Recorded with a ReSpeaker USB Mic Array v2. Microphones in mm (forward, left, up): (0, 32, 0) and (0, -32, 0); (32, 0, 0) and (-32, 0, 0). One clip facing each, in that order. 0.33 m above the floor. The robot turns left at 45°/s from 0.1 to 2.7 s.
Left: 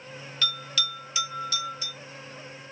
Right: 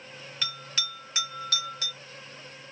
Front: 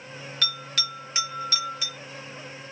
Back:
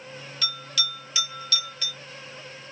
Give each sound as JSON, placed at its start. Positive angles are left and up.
{"t": 0.4, "sound": "a bell", "azimuth_deg": -15, "distance_m": 1.1}